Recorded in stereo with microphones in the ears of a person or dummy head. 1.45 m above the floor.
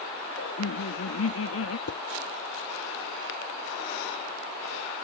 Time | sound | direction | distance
0.4 | laughter | 80° left | ?
1.9 | dishes clattering | 65° left (ahead or behind) | ?